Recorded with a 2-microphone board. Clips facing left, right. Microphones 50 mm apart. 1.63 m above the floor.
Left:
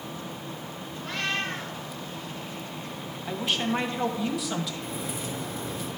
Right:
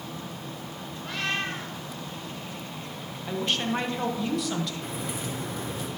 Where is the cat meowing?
10° right (ahead or behind), 5 m.